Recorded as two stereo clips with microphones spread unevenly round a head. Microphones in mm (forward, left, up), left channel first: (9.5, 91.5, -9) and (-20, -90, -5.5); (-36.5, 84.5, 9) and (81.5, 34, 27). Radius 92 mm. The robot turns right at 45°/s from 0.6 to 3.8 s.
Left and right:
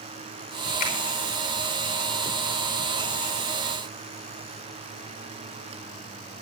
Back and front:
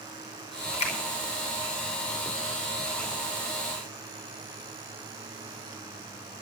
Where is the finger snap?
125° left, 5 m; by 0.9 s 135° left, 5 m.